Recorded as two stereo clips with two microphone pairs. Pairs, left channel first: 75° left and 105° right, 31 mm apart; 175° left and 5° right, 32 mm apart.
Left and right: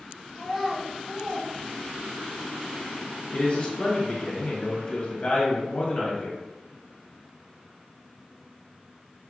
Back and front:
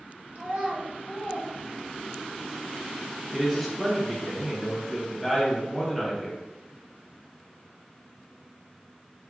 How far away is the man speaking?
About 1.2 m.